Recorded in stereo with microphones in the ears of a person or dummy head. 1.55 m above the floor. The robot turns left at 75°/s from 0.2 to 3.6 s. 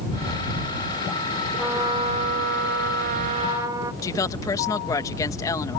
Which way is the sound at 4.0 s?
15° left (ahead or behind).